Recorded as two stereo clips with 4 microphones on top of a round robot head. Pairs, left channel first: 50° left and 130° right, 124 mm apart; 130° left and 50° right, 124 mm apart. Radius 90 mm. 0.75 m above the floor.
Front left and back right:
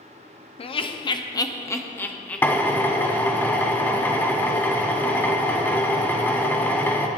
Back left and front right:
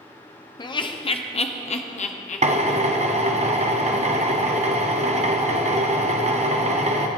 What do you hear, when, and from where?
0.6 s laughter: 80° left, 1.1 m; by 3.1 s 140° left, 1.6 m
2.4 s a drill: 25° right, 1.2 m